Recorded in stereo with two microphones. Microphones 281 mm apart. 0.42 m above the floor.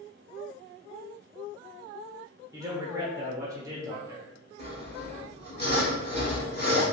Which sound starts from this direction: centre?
A man speaking, at 2.5 s.